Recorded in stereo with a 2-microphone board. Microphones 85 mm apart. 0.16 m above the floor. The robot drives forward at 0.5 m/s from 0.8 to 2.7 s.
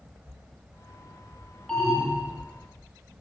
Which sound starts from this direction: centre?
An alarm, at 1.7 s.